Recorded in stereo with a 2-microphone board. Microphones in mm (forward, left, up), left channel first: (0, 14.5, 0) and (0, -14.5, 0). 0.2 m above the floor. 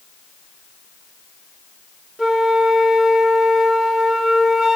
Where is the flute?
Centre (ahead or behind), 5 m.